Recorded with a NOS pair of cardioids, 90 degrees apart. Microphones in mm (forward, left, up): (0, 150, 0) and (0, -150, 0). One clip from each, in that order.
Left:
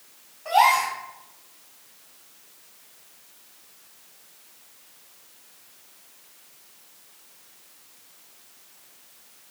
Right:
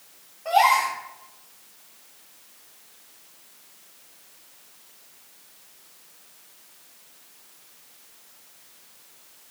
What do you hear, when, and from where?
0.5 s a gasp: 5° right, 3 m